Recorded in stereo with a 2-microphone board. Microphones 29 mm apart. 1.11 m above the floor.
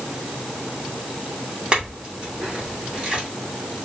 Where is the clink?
40° right (ahead or behind), 2.5 m.